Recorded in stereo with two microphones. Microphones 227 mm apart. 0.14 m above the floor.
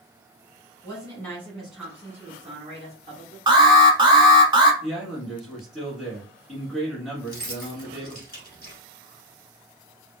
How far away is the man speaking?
About 1.4 m.